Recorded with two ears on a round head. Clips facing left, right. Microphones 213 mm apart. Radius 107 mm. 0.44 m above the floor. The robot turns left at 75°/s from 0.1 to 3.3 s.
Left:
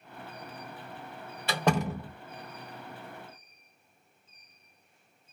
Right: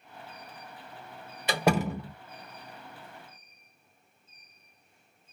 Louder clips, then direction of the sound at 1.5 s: Right 2 dB; 150° right.